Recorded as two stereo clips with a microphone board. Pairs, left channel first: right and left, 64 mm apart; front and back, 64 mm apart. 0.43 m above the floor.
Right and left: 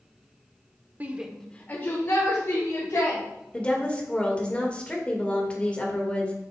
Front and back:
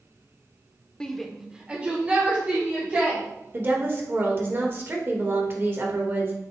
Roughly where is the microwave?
No microwave in this recording.